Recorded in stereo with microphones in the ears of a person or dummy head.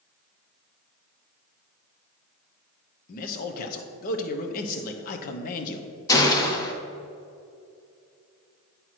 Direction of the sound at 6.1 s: 20° left (ahead or behind).